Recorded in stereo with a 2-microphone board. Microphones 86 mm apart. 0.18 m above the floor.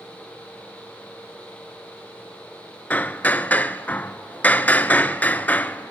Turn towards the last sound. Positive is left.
turn(degrees=20)  # may be behind; listen again after turning